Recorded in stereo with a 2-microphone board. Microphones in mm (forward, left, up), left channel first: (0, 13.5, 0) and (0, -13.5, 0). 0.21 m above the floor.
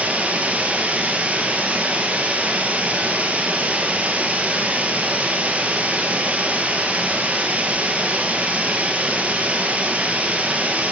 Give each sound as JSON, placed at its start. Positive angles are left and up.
{"t": 0.0, "sound": "running water", "side_deg": -75, "distance_m": 1.5}